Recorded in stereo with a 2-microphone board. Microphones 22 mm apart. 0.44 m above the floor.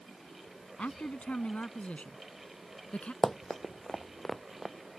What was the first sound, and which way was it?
A man speaking, 75° left (ahead or behind).